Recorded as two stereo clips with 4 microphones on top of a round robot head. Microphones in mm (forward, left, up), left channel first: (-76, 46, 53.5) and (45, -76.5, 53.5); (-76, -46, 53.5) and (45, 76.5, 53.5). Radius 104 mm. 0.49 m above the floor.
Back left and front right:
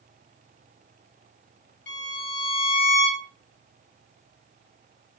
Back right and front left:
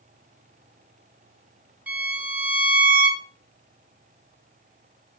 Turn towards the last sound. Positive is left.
turn(degrees=125)